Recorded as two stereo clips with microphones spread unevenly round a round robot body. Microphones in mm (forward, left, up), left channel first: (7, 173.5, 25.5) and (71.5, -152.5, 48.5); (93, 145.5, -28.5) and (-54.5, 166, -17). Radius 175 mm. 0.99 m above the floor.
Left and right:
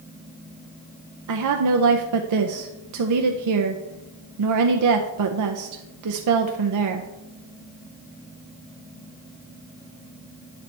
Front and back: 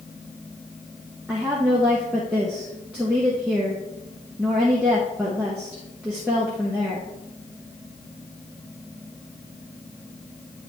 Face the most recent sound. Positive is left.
turn(degrees=-100)